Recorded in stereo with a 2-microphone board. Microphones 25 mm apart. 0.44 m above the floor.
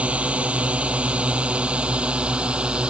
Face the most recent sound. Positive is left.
turn(degrees=-50)  # may be behind; listen again after turning